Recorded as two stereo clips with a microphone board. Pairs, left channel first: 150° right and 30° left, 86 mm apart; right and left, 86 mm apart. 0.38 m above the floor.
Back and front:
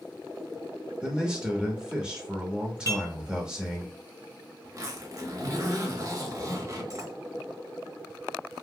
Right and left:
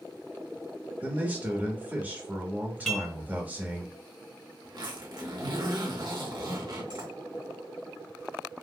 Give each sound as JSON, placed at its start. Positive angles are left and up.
{"t": 1.0, "sound": "a man speaking", "azimuth_deg": 85, "distance_m": 0.8}
{"t": 2.9, "sound": "dishes clattering", "azimuth_deg": -5, "distance_m": 1.0}
{"t": 4.6, "sound": "a zipper", "azimuth_deg": 70, "distance_m": 0.9}